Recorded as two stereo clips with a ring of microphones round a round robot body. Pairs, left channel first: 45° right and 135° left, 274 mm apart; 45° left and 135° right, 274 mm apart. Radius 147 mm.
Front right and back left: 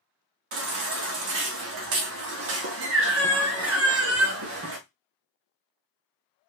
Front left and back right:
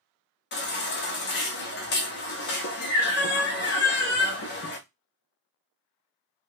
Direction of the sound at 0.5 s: 95° left.